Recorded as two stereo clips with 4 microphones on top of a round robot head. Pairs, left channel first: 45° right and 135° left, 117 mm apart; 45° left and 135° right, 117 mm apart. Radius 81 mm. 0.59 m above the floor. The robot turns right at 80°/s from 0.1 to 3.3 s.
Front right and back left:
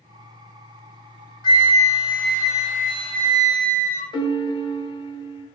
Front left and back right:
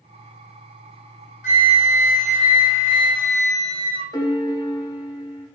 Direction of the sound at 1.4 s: 10° left.